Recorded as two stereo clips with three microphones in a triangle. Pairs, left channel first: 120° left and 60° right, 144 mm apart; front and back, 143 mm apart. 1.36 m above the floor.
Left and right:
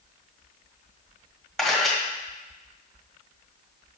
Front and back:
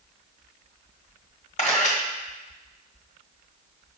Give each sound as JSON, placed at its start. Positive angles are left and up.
{"t": 1.6, "sound": "a camera shutter", "azimuth_deg": 30, "distance_m": 1.5}